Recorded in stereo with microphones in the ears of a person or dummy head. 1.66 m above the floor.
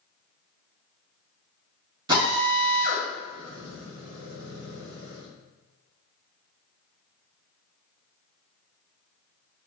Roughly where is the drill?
Right.